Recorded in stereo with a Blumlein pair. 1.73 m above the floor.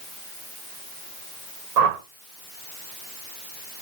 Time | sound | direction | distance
1.8 | a whoosh | 40° right | 2.5 m